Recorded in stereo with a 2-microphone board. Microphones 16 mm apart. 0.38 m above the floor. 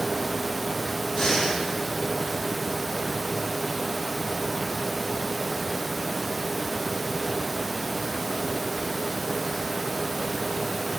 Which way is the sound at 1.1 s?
45° left (ahead or behind).